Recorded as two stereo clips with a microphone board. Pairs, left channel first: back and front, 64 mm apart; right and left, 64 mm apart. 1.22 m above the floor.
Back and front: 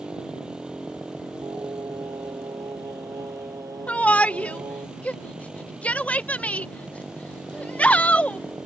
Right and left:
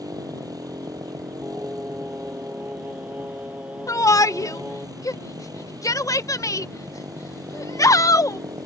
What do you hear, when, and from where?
0.0 s a motorcycle: 75° left
1.4 s singing: 25° left
3.9 s a shout: 110° right